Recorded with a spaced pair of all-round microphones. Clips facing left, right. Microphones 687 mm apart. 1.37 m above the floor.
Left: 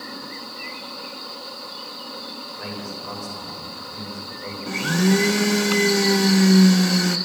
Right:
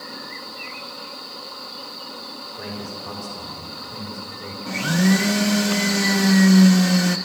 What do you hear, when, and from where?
2.6 s a man speaking: 60° right (ahead or behind), 7 m
4.7 s a blender: 15° right (ahead or behind), 0.6 m